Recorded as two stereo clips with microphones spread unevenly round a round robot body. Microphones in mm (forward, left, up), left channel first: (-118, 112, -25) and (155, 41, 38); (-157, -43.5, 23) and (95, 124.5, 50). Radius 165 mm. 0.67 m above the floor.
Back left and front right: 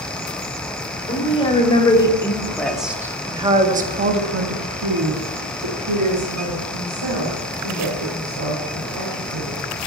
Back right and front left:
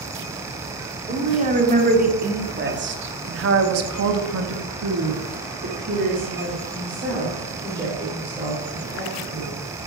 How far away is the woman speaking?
About 2.5 m.